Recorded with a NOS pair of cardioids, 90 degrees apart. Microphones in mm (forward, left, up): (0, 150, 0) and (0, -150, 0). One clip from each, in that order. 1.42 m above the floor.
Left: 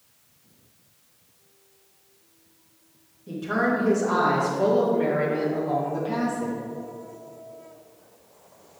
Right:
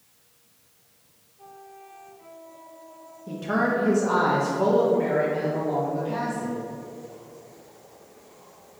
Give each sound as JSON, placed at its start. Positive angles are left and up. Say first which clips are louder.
{"t": 3.3, "sound": "a woman speaking", "louder": "even", "azimuth_deg": -25, "distance_m": 1.9}